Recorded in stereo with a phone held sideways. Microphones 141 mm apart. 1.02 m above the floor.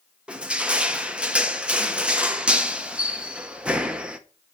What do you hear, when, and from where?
0.3 s crushing: 10° right (ahead or behind), 0.8 m